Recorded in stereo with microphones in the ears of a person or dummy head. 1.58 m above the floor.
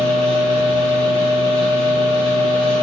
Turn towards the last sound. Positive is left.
turn(degrees=40)  # may be behind; listen again after turning